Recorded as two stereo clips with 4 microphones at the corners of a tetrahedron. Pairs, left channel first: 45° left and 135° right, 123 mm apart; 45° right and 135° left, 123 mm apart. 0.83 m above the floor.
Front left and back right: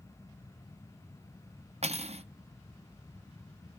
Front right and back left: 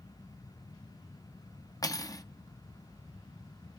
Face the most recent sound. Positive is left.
turn(degrees=-105)